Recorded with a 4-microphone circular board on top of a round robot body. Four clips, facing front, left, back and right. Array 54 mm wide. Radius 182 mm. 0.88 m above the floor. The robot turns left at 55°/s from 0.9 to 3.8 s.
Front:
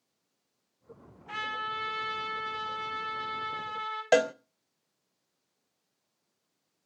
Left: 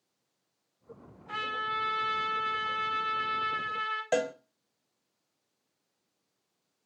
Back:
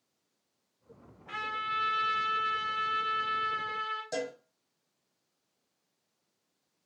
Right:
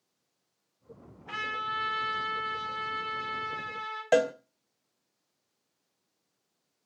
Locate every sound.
1.3 s a trumpet: 105° right, 5 m; by 4.0 s 115° left, 5 m
4.1 s a cowbell: 15° right, 0.6 m